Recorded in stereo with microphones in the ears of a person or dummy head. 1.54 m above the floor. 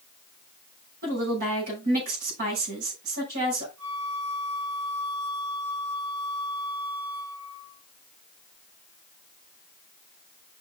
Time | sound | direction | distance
1.0 | a woman speaking | 65° right (ahead or behind) | 6.5 m
3.8 | a flute | 75° right (ahead or behind) | 5.5 m